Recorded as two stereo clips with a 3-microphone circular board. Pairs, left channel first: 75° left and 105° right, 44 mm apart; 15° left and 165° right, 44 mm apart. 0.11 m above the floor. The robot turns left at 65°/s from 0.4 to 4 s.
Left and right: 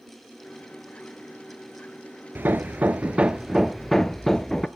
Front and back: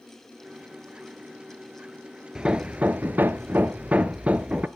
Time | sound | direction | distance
2.4 | hammering | 100° right | 0.6 m